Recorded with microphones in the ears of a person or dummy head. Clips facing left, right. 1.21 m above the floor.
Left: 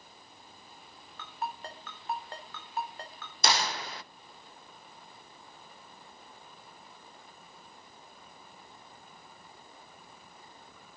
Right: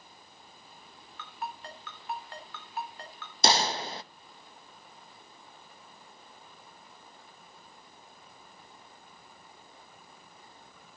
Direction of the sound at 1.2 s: 30° left (ahead or behind).